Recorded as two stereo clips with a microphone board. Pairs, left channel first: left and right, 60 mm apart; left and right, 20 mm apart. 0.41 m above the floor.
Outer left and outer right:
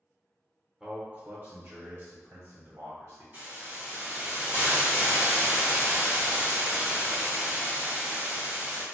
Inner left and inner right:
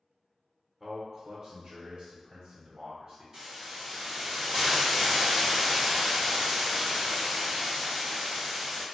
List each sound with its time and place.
0.8 s a man speaking: 15° right (ahead or behind), 0.8 m; by 3.2 s 70° right (ahead or behind), 2.5 m
3.3 s a hiss: 45° right (ahead or behind), 1.9 m